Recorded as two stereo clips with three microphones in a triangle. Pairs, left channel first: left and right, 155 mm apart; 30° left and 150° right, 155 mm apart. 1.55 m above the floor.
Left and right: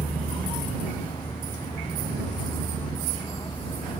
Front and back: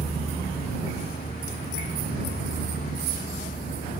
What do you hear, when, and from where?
0.0 s a vehicle: 30° left